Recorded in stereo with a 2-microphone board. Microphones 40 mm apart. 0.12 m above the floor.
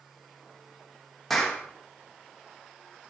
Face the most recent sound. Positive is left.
turn(degrees=5)  # may be behind; listen again after turning